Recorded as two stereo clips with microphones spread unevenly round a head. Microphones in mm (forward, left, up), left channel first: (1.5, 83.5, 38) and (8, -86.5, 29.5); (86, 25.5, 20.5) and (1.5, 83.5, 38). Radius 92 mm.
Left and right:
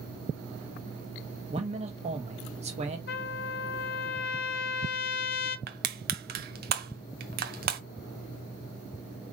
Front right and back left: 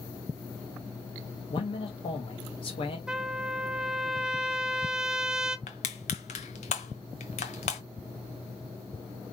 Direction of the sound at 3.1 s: 60° left.